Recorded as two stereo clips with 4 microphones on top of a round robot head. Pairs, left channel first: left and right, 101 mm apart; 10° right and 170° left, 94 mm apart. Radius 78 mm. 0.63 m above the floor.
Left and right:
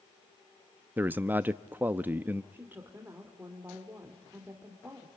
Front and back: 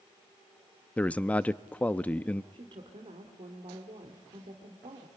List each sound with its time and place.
1.0 s a man speaking: 60° right, 0.5 m
2.5 s a woman speaking: 160° right, 2.5 m